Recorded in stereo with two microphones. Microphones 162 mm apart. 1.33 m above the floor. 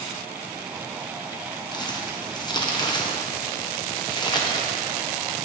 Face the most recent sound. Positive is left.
turn(degrees=25)  # may be behind; listen again after turning